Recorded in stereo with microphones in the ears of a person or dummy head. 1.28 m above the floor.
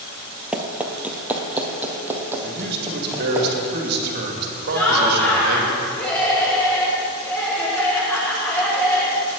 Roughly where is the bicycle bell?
No bicycle bell in this recording.